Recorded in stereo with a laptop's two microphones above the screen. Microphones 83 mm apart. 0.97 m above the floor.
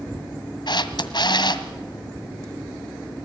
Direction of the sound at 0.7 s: 65° left (ahead or behind).